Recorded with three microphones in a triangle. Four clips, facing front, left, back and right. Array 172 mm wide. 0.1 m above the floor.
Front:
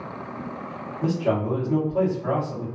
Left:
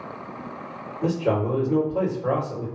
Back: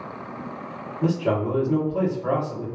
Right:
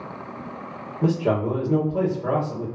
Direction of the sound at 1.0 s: 110° right.